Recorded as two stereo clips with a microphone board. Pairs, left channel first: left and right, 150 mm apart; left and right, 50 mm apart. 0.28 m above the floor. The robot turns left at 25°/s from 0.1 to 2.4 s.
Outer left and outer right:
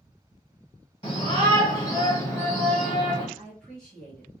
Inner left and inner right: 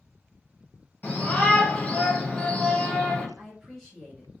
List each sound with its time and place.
1.0 s a shout: 55° left, 1.7 m; by 3.3 s 25° left, 1.7 m
3.4 s a woman speaking: 5° left (ahead or behind), 1.2 m